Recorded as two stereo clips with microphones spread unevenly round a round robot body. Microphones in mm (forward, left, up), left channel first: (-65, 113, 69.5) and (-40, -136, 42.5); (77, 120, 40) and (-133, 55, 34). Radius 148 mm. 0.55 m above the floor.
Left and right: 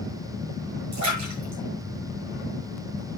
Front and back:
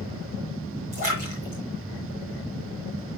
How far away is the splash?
About 8 m.